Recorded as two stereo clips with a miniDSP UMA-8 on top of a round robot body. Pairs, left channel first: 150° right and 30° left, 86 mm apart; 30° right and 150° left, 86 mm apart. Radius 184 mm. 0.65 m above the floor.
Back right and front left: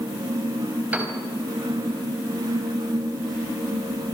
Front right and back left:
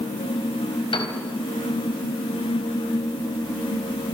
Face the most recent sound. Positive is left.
turn(degrees=-45)